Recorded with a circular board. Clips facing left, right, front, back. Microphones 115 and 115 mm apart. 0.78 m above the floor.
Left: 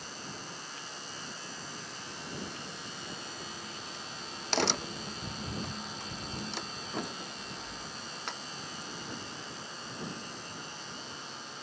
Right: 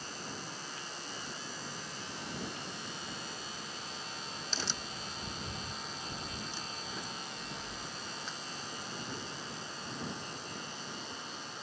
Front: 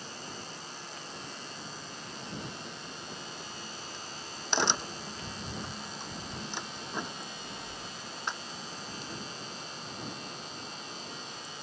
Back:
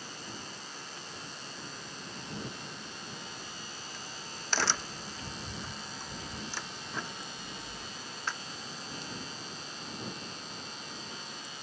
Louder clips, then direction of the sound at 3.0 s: Left 1 dB, front 1 dB; 70° left.